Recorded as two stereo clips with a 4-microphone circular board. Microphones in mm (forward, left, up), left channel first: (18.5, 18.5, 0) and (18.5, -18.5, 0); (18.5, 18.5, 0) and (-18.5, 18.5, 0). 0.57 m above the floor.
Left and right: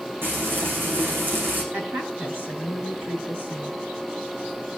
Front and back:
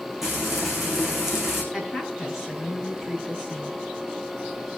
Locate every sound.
0.2 s frying: 95° right, 7 m
1.7 s a woman speaking: 90° right, 7 m